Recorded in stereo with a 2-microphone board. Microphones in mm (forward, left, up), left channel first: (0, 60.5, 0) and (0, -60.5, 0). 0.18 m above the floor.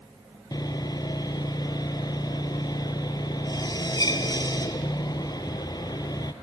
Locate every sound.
0.5 s sawing: 35° left (ahead or behind), 0.9 m